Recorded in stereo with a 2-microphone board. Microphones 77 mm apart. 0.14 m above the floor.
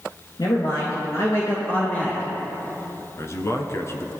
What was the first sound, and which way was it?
A man speaking, 60° left (ahead or behind).